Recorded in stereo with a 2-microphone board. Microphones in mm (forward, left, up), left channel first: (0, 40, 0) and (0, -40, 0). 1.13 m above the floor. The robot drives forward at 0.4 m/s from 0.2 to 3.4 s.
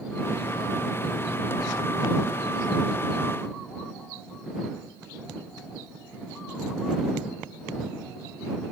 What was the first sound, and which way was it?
Only background noise.